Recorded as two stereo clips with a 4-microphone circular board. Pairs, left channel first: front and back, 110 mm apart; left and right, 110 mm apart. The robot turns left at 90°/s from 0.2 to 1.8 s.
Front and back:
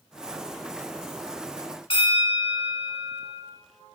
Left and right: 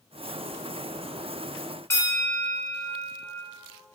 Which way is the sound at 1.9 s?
25° left.